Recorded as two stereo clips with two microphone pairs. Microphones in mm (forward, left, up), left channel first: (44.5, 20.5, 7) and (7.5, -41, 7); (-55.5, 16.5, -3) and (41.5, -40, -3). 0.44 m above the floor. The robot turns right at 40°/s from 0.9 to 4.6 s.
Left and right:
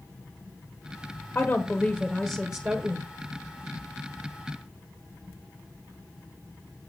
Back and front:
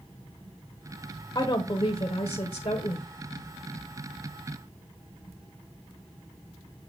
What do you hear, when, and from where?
1.4 s a woman speaking: 115° left, 1.3 m; by 3.1 s 175° right, 1.3 m